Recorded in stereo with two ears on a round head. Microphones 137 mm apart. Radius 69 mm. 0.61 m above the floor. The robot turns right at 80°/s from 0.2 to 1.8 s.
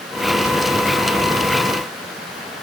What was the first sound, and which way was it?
Only background noise.